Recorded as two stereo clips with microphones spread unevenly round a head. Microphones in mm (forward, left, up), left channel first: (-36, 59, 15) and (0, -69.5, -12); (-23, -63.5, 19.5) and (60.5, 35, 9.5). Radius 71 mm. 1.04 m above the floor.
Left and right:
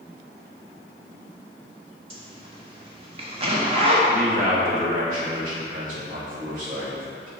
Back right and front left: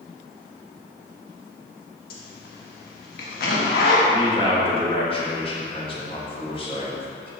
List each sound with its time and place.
2.1 s a zipper: 125° right, 1.2 m
4.1 s a man speaking: 80° right, 1.9 m